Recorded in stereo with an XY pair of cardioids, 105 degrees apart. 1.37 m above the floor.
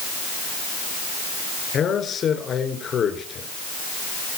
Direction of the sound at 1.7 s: 55° left.